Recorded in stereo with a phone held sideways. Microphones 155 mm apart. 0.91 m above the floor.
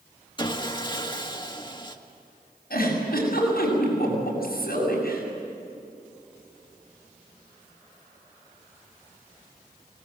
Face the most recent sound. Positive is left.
turn(degrees=80)